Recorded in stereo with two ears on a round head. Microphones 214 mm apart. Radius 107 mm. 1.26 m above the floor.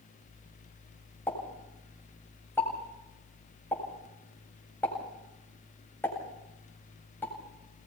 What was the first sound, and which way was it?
A pop, 10° left (ahead or behind).